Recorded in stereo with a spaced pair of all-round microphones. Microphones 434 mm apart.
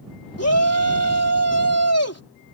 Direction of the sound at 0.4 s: 35° left (ahead or behind).